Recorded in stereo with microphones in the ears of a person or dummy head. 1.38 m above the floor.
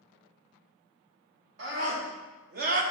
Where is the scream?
65° right (ahead or behind), 2.5 m; by 2.8 s 50° right (ahead or behind), 1.2 m.